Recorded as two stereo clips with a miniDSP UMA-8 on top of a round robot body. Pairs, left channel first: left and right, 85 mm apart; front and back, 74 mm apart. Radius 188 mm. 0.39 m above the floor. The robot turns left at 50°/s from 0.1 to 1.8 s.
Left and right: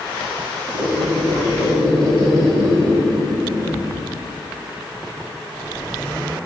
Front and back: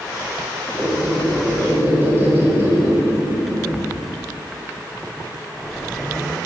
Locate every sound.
0.7 s a squeak: 65° right, 3.5 m; by 4.1 s 120° right, 3.5 m